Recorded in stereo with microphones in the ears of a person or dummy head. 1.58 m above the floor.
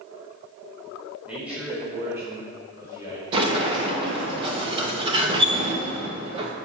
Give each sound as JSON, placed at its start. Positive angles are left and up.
{"t": 1.2, "sound": "a man speaking", "side_deg": 0, "distance_m": 5.0}
{"t": 3.3, "sound": "a sliding door", "side_deg": -30, "distance_m": 1.5}